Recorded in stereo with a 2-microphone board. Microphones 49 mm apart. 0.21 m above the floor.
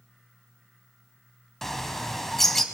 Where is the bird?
5° left (ahead or behind), 0.8 m.